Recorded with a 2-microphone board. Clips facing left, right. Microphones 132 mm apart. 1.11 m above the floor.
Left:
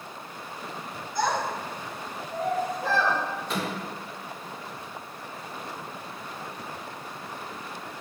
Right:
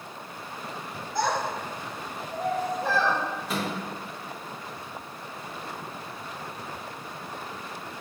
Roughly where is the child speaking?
Right.